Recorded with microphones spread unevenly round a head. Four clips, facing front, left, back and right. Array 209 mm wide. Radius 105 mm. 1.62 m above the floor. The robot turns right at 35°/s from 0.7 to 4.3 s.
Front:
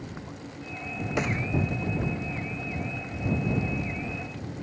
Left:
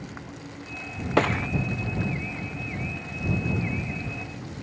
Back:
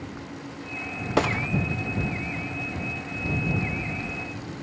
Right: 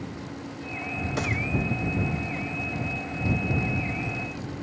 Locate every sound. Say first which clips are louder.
1.2 s a gunshot: left 9 dB, back 6 dB; 125° left; by 1.5 s 135° left